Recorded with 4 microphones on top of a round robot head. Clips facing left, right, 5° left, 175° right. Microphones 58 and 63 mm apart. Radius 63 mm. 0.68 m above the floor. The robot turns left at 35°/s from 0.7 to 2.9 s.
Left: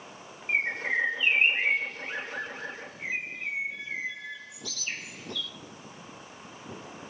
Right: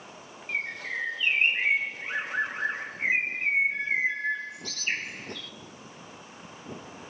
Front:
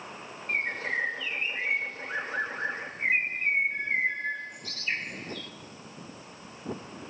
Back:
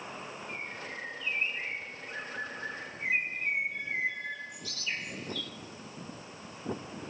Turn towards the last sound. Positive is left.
turn(degrees=-45)